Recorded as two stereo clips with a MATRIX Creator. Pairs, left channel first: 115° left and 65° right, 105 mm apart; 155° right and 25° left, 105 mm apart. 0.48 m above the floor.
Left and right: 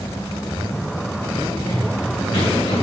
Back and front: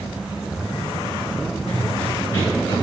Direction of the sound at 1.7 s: 145° left.